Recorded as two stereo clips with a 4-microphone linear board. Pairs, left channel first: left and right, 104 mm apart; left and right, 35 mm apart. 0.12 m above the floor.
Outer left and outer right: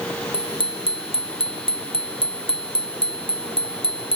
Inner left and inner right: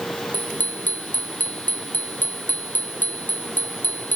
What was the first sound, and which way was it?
A bicycle bell, 55° left (ahead or behind).